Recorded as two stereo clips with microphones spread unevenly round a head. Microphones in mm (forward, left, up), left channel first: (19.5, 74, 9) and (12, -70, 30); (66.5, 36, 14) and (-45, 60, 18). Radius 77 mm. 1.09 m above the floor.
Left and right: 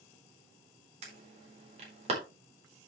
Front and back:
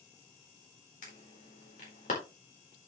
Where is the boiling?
No boiling in this recording.